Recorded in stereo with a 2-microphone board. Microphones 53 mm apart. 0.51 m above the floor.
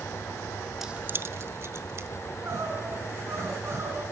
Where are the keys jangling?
5° right (ahead or behind), 0.5 m; by 2.1 s 50° right (ahead or behind), 1.9 m.